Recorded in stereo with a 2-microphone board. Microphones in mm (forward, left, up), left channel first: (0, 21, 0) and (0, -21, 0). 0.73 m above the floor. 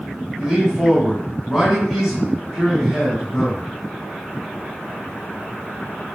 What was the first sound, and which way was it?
A man speaking, centre (ahead or behind).